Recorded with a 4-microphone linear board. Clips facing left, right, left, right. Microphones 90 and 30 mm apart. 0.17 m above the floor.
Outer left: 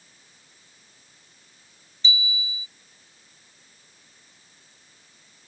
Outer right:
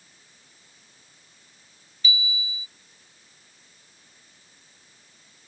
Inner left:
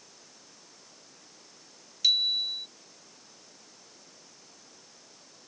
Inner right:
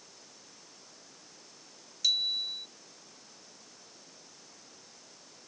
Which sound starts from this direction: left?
A bicycle bell, at 2.0 s.